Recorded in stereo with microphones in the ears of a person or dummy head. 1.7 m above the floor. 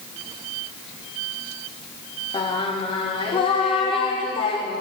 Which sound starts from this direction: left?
Singing, at 2.3 s.